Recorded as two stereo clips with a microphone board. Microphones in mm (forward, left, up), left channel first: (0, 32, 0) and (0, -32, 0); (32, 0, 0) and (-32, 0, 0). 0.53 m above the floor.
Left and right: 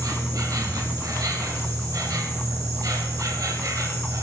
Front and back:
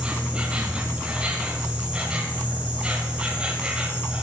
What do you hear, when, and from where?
0.0 s an insect: 110° right, 3.5 m